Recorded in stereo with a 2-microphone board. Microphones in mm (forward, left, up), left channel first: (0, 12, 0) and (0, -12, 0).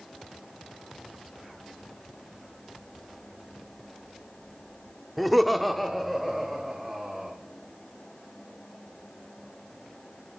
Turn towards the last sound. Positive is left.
turn(degrees=5)  # may be behind; listen again after turning